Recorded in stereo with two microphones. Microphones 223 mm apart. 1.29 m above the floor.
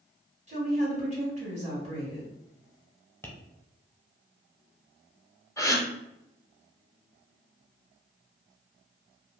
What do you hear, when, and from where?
0.5 s a woman speaking: 30° right (ahead or behind), 1.6 m
3.2 s tapping: 10° left (ahead or behind), 0.7 m
5.6 s a gasp: 15° left (ahead or behind), 0.5 m